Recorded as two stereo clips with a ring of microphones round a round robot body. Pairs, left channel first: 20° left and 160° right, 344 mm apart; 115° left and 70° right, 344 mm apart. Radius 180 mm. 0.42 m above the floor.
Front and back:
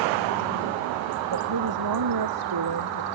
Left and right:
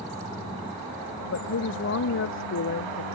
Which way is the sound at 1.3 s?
165° left.